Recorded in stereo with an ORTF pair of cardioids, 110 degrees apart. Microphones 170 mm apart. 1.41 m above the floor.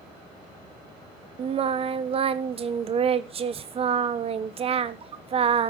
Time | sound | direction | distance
1.4 | singing | 35° right | 0.9 m